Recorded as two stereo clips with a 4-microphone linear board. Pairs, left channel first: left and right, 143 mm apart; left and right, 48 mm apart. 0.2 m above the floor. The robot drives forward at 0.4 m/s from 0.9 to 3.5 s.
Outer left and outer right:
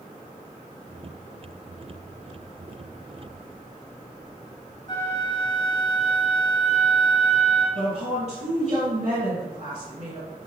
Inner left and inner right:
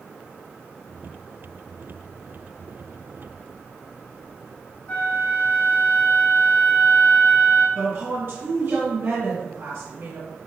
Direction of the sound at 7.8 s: 50° right (ahead or behind).